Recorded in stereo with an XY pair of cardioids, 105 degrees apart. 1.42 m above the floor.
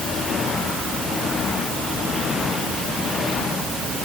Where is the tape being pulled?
I don't hear tape being pulled.